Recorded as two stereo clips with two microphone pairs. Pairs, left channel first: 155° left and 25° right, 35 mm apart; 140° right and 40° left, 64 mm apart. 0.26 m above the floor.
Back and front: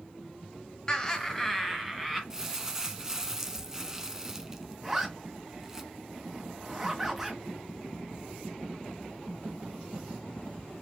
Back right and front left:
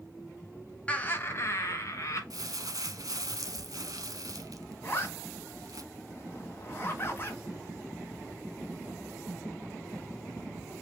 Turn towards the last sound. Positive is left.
turn(degrees=-95)